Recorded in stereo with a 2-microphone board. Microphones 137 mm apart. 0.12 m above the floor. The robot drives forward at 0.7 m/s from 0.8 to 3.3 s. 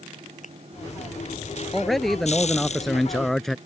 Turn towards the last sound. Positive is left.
turn(degrees=0)  # may be behind; listen again after turning